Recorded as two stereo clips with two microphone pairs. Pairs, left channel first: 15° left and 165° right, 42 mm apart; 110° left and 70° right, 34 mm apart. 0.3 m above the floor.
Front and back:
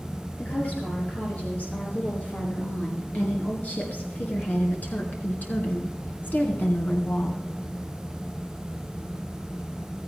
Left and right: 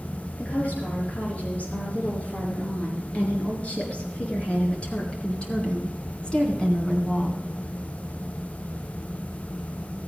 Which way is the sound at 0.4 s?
65° left.